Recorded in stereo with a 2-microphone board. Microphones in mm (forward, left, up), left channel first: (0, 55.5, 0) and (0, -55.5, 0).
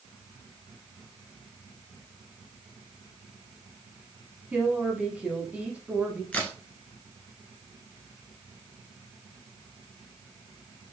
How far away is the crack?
About 1.2 m.